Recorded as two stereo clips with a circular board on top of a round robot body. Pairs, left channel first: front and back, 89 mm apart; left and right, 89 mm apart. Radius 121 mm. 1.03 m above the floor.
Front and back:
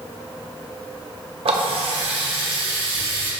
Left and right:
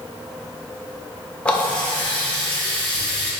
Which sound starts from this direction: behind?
A running tap, at 1.4 s.